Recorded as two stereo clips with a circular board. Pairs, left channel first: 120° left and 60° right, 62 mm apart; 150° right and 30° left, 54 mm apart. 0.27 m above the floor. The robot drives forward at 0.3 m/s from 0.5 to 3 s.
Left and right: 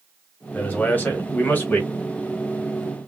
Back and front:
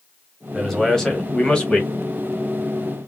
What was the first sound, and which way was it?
A man speaking, 130° left.